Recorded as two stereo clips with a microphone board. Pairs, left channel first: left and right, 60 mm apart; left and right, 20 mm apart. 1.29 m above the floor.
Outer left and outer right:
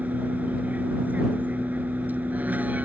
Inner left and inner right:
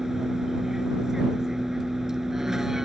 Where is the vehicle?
30° right (ahead or behind).